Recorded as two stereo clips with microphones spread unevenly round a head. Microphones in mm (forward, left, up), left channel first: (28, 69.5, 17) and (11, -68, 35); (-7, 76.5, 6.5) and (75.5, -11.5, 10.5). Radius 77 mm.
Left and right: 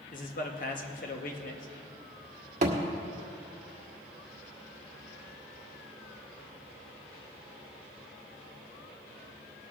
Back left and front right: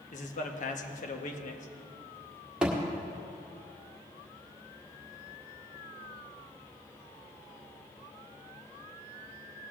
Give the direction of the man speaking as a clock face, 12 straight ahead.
8 o'clock.